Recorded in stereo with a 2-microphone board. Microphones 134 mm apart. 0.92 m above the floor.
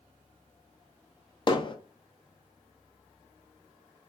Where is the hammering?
35° left (ahead or behind), 0.5 m.